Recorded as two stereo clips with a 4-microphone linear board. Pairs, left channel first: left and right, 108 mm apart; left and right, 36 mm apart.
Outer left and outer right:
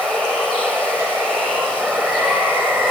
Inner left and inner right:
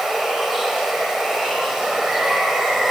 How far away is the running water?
About 4.5 m.